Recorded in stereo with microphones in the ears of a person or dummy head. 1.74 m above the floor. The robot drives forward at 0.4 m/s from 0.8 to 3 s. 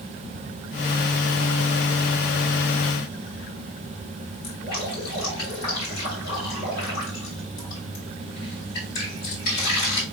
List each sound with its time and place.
4.4 s dripping: 65° left (ahead or behind), 3 m